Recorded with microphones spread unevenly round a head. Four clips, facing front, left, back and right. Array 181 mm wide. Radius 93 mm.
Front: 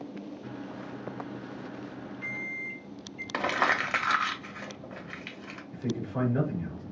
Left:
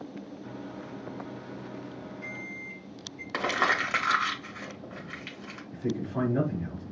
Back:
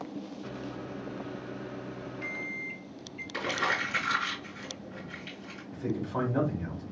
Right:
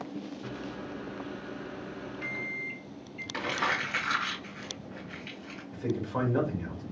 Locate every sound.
0.4 s a microwave: 120° right, 1.8 m
3.3 s crumpling: 40° left, 1.4 m
5.7 s a man speaking: 145° right, 3 m